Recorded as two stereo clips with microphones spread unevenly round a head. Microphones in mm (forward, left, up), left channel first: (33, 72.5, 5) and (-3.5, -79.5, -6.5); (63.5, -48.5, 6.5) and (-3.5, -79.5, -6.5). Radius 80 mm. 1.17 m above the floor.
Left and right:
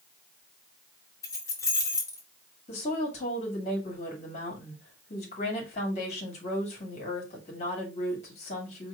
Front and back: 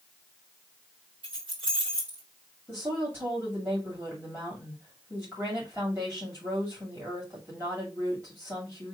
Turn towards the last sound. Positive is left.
turn(degrees=130)